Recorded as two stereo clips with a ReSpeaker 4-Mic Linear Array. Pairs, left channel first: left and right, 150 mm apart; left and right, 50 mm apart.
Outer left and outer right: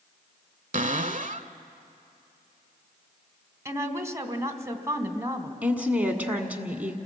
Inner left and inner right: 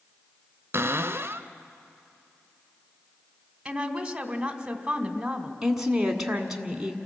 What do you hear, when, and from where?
0.7 s a cupboard door: 55° right (ahead or behind), 0.7 m
3.6 s a woman speaking: 20° right (ahead or behind), 1.3 m
5.6 s a woman speaking: 10° right (ahead or behind), 1.7 m